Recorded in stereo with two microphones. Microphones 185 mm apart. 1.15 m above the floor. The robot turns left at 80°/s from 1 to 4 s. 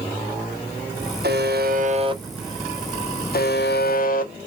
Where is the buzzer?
80° right, 0.6 m; by 4.3 s 60° left, 0.6 m.